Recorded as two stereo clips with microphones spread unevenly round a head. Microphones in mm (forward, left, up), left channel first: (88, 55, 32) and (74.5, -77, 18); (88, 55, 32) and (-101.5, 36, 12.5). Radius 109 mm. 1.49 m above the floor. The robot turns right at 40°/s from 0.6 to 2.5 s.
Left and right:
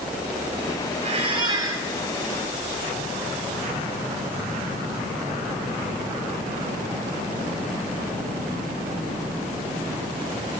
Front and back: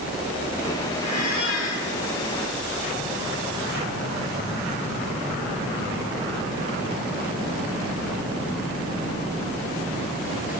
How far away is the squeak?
About 6.5 m.